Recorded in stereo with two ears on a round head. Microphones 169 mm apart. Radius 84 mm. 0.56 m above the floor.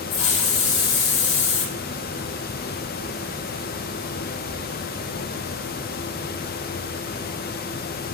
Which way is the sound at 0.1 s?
75° left (ahead or behind).